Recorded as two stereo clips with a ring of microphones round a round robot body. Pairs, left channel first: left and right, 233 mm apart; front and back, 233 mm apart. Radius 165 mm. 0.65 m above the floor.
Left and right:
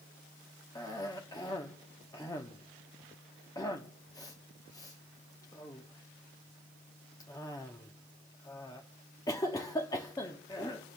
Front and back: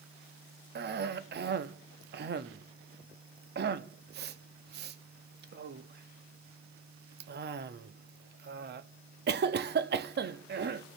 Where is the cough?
160° left, 0.6 m.